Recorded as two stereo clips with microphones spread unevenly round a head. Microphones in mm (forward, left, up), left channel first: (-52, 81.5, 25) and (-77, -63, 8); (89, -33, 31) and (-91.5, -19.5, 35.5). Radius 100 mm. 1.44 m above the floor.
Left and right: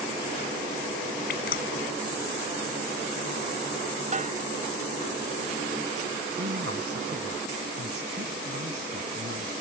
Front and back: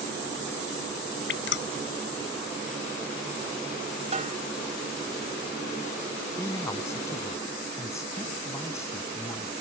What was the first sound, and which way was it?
Dripping, 30° left.